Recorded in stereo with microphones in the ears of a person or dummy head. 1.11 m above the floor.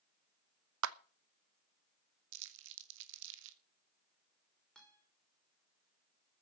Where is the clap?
70° right (ahead or behind), 0.8 m.